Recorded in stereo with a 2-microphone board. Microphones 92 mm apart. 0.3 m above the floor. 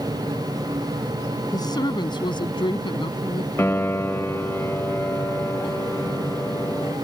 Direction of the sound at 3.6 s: 25° left (ahead or behind).